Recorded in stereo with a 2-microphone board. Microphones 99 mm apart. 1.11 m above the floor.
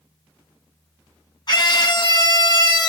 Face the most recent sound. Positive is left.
turn(degrees=45)  # may be behind; listen again after turning